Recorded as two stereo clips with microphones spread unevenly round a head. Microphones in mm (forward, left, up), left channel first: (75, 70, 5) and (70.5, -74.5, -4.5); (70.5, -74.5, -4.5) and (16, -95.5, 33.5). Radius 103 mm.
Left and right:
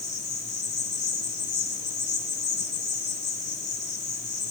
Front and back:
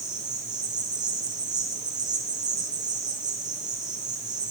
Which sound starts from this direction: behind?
An insect, at 0.0 s.